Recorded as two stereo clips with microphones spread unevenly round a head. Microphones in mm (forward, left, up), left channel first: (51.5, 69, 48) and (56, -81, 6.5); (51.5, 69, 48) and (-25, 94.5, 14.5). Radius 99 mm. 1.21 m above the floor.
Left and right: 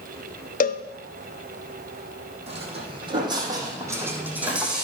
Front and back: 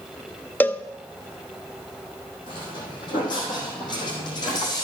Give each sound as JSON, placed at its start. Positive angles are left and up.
{"t": 0.6, "sound": "a cowbell", "azimuth_deg": 70, "distance_m": 0.8}
{"t": 2.5, "sound": "footsteps", "azimuth_deg": -35, "distance_m": 4.0}